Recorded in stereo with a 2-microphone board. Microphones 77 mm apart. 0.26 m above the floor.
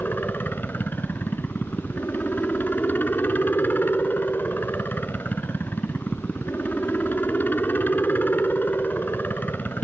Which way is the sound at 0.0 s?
25° left (ahead or behind).